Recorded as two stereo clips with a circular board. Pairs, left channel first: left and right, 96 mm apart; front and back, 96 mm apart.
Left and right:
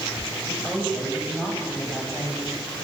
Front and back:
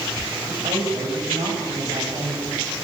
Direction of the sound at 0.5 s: 170° left.